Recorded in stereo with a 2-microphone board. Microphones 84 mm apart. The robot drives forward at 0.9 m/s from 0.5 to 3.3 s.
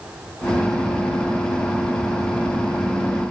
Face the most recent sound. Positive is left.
No sound to turn to.